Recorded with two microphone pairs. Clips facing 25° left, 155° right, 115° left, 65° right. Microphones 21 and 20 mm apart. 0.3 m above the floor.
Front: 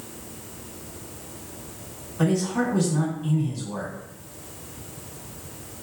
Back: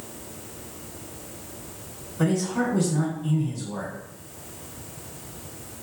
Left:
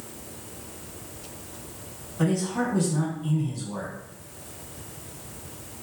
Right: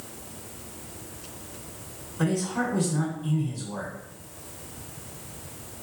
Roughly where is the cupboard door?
I don't hear a cupboard door.